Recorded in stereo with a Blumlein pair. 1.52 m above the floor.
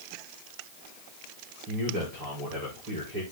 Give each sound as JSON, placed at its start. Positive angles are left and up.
{"t": 1.7, "sound": "a man speaking", "azimuth_deg": -45, "distance_m": 6.5}